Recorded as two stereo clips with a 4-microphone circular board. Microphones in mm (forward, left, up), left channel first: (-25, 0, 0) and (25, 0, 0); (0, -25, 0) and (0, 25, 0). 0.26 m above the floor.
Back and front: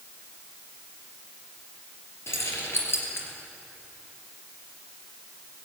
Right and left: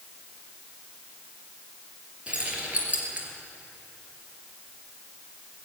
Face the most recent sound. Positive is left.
turn(degrees=145)